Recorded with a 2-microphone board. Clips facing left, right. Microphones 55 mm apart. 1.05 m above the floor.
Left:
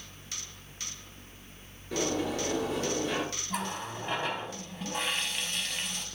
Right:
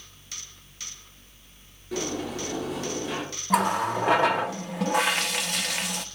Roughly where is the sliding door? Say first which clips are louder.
Even; centre.